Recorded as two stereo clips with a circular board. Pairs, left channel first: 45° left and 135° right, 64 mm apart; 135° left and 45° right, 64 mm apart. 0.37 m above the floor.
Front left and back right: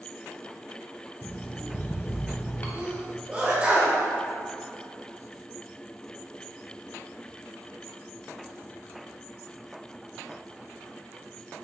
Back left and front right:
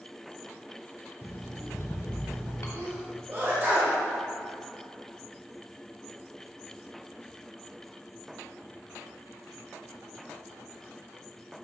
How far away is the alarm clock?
About 0.9 m.